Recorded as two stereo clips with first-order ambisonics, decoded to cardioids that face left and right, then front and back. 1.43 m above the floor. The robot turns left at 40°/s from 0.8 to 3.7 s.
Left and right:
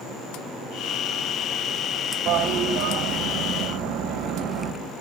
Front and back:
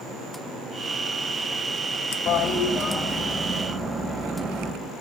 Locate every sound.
2.3 s a toilet flushing: 50° right, 1.2 m; by 4.7 s 105° right, 1.2 m